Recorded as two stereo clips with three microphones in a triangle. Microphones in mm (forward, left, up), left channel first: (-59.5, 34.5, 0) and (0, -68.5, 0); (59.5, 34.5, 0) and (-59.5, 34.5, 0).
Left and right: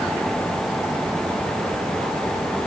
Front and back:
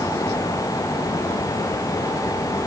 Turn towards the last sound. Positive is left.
No sound to turn to.